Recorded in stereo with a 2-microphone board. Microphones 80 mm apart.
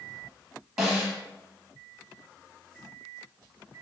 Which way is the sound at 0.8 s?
5° right (ahead or behind).